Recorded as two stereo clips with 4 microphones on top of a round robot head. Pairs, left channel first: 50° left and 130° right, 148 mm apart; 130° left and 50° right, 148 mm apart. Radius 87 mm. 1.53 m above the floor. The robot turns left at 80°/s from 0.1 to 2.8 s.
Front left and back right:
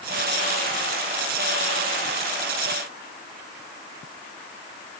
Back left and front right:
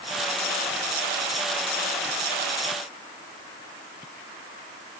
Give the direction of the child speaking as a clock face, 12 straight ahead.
I don't hear a child speaking.